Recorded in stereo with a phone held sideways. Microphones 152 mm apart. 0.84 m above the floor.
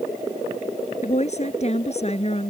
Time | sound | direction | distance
1.0 | a woman speaking | 50° left (ahead or behind) | ?